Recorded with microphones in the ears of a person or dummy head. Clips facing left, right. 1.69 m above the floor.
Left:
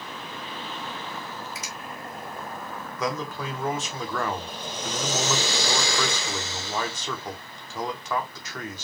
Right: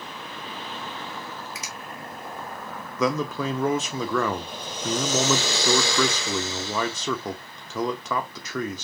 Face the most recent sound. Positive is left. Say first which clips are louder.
# right 6 dB
turn(degrees=-65)  # may be behind; listen again after turning